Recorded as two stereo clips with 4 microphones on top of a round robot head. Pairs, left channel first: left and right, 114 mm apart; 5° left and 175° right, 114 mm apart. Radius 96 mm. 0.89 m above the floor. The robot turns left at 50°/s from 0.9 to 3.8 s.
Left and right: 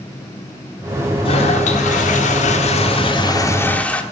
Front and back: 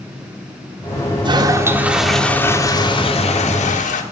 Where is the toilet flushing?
140° left, 1.5 m; by 4.0 s 10° left, 1.5 m.